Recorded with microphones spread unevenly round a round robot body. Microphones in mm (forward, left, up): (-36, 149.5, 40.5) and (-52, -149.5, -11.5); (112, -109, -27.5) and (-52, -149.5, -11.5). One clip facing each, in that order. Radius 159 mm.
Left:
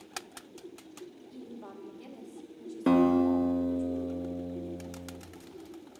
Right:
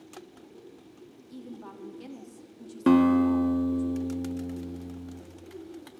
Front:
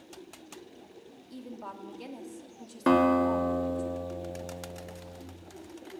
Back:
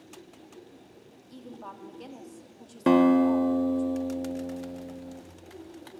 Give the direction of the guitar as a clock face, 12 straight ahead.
4 o'clock.